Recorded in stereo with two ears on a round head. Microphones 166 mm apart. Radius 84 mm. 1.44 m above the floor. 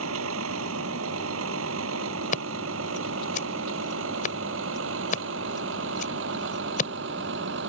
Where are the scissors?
45° left (ahead or behind).